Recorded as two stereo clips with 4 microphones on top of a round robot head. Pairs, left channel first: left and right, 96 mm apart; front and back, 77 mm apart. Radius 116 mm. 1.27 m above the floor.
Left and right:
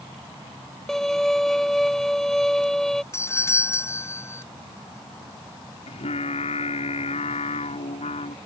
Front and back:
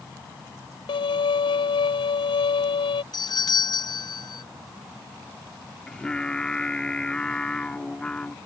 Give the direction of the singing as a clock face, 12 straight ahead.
9 o'clock.